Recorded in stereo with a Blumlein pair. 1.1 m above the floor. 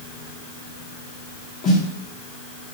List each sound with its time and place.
1.6 s a snare drum: 25° left, 0.9 m